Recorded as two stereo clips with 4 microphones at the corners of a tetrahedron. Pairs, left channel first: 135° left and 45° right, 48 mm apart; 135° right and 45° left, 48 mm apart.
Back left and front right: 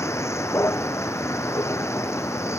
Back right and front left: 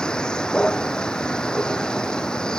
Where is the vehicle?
150° left.